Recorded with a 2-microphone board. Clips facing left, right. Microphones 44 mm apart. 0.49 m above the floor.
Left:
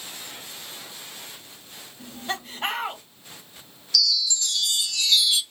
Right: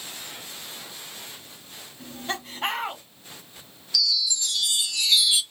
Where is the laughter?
Centre (ahead or behind), 1.0 m.